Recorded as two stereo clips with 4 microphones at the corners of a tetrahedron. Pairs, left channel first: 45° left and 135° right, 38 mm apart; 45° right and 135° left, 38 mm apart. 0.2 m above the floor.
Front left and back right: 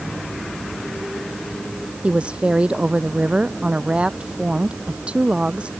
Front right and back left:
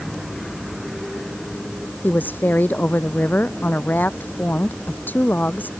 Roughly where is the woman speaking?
Right.